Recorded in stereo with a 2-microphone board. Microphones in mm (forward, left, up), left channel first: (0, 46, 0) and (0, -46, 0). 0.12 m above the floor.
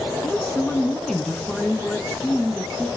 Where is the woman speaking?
5° left (ahead or behind), 1.0 m.